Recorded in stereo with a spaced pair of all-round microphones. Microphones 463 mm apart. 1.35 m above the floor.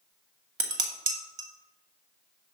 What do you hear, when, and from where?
0.6 s dishes clattering: 75° right (ahead or behind), 1.2 m